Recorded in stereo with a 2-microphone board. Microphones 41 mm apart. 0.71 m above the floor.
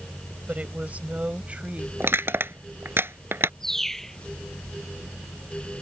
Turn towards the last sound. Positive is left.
turn(degrees=10)  # may be behind; listen again after turning